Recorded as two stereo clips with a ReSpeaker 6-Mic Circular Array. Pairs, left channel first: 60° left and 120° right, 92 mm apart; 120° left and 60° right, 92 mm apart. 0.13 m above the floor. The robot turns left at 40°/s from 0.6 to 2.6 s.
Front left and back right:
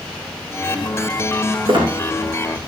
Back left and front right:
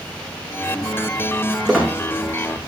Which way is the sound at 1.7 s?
150° right.